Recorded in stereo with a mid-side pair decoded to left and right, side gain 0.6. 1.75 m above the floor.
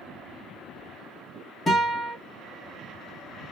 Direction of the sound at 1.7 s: 20° left.